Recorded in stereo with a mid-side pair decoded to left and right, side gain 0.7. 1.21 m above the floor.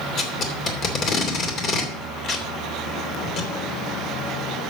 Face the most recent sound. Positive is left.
turn(degrees=45)